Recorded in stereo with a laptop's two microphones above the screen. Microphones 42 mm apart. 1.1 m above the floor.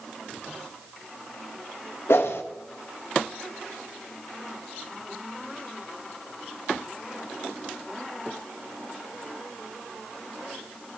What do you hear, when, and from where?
2.1 s a whoosh: 75° left (ahead or behind), 1.6 m